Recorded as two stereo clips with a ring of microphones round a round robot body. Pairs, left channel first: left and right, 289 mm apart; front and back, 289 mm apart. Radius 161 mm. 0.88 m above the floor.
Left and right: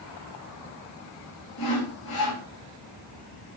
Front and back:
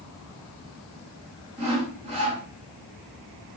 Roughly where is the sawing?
Left.